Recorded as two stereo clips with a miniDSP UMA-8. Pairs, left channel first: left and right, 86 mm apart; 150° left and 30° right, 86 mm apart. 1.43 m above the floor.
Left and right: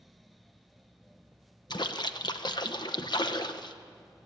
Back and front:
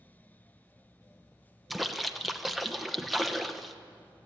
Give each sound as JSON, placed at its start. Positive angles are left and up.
{"t": 1.7, "sound": "a splash", "azimuth_deg": 60, "distance_m": 1.0}